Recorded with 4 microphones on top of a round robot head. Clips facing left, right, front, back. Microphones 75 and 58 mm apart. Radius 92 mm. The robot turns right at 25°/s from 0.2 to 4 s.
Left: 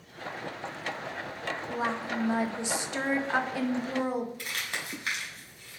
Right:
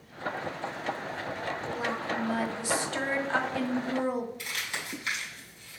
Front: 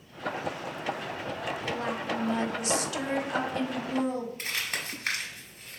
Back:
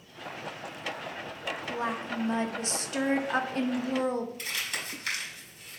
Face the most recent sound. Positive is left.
turn(degrees=50)